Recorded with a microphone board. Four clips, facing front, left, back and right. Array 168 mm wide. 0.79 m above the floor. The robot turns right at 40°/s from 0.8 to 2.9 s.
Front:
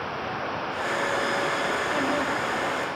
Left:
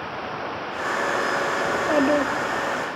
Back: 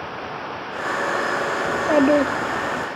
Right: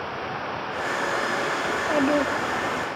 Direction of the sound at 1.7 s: 160° left.